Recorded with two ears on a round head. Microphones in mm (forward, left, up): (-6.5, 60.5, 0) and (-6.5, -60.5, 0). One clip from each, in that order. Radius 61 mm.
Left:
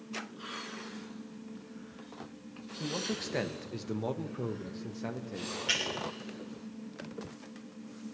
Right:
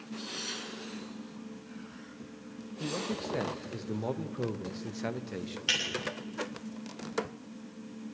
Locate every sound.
2.8 s a man speaking: 50° left (ahead or behind), 1.0 m; by 5.6 s 40° right (ahead or behind), 1.0 m
5.7 s breaking glass: 60° right (ahead or behind), 9.5 m